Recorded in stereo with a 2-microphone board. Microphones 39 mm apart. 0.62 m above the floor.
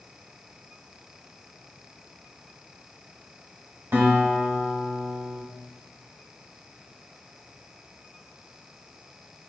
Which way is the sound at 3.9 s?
75° right (ahead or behind).